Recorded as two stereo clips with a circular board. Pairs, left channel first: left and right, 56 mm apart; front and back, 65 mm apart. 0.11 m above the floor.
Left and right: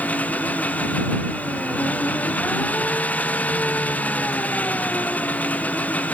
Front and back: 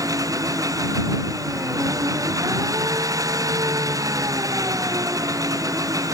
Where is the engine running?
150° left.